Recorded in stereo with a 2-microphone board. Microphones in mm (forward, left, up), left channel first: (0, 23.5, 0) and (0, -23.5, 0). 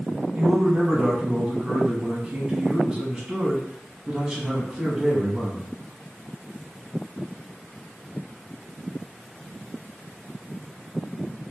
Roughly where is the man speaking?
Centre.